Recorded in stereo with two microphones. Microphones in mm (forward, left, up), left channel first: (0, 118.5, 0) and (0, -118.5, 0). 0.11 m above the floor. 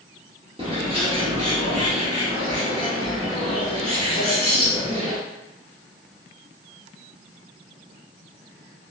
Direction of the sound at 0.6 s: 25° right (ahead or behind).